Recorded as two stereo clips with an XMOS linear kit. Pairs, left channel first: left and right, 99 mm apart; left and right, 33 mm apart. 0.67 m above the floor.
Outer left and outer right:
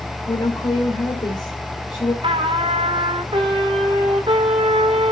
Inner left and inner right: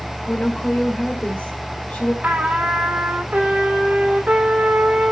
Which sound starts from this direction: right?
A trumpet, at 2.2 s.